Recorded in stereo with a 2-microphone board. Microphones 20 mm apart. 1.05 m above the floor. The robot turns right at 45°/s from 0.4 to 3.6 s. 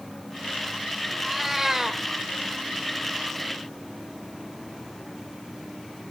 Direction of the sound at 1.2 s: 170° left.